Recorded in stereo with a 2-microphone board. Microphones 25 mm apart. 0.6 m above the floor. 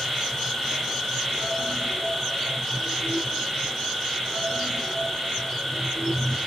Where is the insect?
40° left (ahead or behind), 7 m.